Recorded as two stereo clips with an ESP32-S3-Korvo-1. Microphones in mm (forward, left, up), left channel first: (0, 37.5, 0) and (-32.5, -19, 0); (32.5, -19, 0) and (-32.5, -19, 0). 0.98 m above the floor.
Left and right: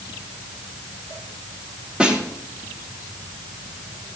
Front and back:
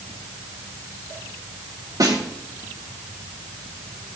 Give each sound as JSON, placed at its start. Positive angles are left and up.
{"t": 2.0, "sound": "a snare drum", "azimuth_deg": 165, "distance_m": 3.0}